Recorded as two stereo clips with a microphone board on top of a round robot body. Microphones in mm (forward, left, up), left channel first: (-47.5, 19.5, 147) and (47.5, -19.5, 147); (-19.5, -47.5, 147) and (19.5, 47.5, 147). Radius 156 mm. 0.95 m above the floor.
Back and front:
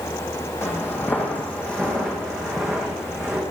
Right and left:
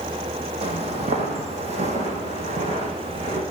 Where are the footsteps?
90° left, 2.0 m; by 3.4 s 65° left, 3.5 m.